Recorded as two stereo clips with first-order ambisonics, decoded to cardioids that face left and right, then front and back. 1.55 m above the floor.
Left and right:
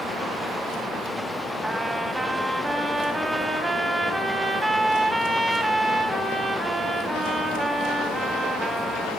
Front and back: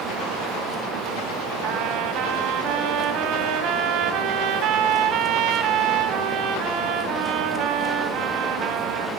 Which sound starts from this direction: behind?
A trumpet, at 1.6 s.